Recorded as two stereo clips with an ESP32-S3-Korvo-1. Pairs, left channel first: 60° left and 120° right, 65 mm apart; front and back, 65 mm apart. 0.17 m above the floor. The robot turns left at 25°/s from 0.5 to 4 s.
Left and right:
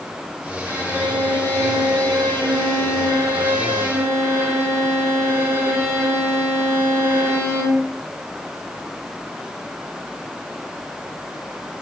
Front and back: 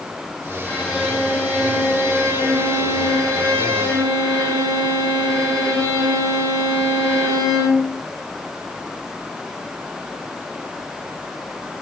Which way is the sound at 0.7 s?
90° right.